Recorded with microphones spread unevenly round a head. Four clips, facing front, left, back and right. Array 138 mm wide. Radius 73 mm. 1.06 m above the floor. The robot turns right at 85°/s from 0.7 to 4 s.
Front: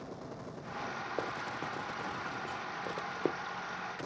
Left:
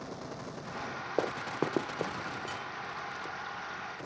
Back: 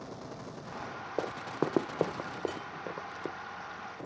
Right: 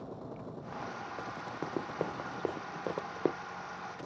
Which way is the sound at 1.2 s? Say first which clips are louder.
Left 12 dB, back 8 dB; 105° left.